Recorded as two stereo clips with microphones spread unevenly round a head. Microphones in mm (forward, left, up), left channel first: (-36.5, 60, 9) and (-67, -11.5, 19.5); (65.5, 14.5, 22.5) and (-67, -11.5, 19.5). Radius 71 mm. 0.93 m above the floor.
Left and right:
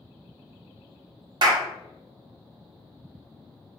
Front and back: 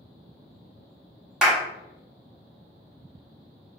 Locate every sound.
1.4 s a clap: 85° right, 1.0 m